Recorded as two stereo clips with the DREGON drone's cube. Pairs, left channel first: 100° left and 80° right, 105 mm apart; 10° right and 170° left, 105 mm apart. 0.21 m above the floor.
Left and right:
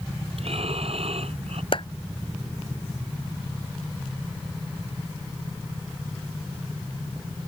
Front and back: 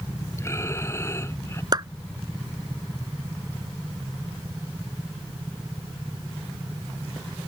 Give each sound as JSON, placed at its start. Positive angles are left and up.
{"t": 0.4, "sound": "breathing", "azimuth_deg": -75}
{"t": 1.7, "sound": "a clap", "azimuth_deg": 125}